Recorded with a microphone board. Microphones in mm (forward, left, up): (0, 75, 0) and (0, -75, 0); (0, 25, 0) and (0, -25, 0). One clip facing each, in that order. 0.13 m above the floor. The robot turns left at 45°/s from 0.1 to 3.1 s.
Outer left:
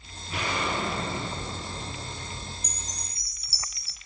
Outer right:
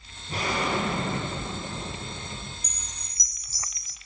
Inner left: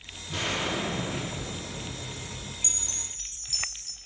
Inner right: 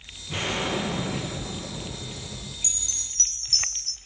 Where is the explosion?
40° right, 4 m; by 2.5 s 140° right, 4 m.